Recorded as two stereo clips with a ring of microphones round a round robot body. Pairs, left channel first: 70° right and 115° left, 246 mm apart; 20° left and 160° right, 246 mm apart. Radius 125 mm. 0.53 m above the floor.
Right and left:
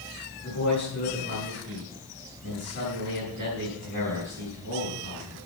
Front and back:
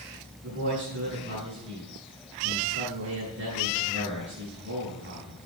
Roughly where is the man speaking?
Behind right.